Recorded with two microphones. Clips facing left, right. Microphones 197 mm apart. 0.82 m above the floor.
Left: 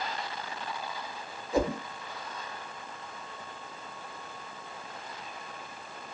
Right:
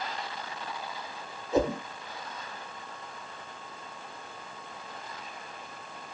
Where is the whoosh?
25° right (ahead or behind), 2.5 m.